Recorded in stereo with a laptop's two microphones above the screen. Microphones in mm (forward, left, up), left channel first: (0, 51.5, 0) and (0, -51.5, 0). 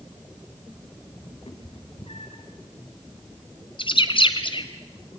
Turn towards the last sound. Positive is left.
turn(degrees=55)  # may be behind; listen again after turning